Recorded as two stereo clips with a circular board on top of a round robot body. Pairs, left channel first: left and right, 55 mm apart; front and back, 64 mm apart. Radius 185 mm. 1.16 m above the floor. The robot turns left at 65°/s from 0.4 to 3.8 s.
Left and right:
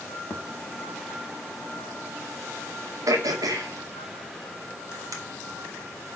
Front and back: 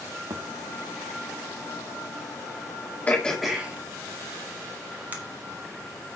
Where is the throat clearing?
65° right, 2 m; by 5.2 s 115° right, 2 m.